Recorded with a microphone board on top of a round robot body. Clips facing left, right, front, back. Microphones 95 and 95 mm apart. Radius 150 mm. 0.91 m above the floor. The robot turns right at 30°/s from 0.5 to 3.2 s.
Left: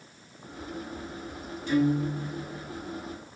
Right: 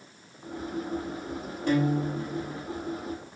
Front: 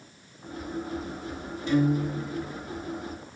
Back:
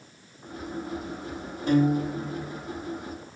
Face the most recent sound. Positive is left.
turn(degrees=-85)